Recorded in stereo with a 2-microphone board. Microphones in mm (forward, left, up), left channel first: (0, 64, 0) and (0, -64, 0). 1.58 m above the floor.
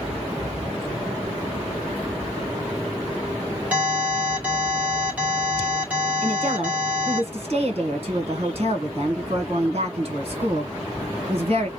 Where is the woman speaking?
50° right (ahead or behind), 1.5 m.